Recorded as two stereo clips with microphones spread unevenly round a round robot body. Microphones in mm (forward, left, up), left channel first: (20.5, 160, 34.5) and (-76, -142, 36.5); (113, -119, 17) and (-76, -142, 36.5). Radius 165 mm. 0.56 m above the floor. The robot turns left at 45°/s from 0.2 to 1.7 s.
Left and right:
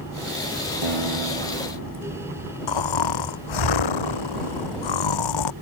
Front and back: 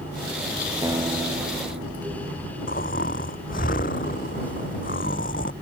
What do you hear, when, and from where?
0.8 s a guitar: 100° right; by 2.5 s 140° right
2.7 s snoring: 70° left